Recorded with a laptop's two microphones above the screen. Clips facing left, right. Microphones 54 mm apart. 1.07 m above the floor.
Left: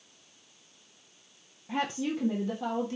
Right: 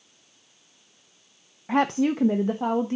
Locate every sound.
1.7 s a woman speaking: 65° right (ahead or behind), 0.6 m; by 3.0 s 30° right (ahead or behind), 1.2 m